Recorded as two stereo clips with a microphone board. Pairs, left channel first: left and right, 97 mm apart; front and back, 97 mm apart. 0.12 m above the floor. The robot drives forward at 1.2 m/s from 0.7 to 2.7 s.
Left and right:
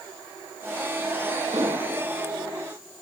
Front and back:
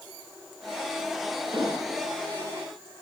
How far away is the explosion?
About 9 m.